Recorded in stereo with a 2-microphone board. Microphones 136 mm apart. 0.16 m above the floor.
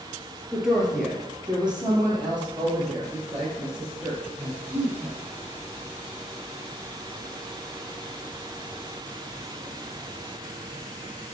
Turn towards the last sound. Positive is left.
turn(degrees=-10)  # may be behind; listen again after turning